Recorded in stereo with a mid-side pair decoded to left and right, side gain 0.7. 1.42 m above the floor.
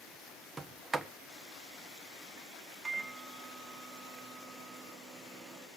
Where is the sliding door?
10° right, 1.3 m.